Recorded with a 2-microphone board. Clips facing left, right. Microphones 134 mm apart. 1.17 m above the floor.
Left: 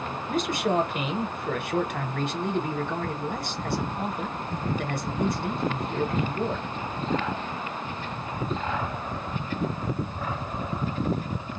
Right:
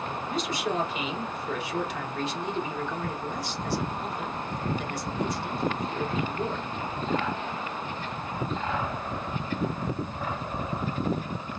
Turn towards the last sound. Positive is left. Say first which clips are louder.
# left 5 dB
turn(degrees=55)  # may be behind; listen again after turning